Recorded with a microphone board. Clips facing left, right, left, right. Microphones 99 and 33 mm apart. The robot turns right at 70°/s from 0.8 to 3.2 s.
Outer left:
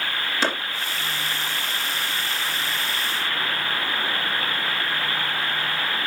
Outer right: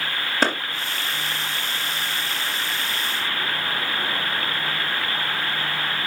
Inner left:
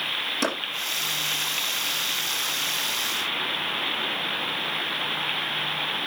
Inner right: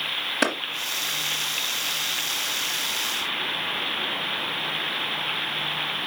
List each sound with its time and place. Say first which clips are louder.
0.4 s a clap: outer right 3 dB, inner right 4 dB; 40° right (ahead or behind), 3 m